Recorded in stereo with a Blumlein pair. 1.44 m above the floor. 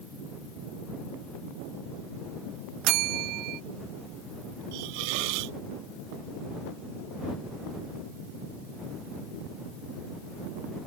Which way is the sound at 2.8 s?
40° right.